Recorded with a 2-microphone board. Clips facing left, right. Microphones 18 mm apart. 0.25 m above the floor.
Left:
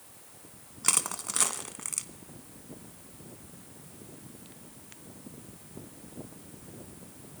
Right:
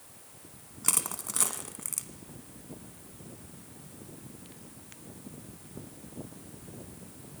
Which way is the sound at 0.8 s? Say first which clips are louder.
Left 3 dB; 15° left (ahead or behind).